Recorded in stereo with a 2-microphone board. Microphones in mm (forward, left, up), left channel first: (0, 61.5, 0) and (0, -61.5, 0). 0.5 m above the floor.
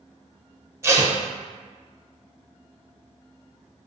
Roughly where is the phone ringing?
No phone ringing in this recording.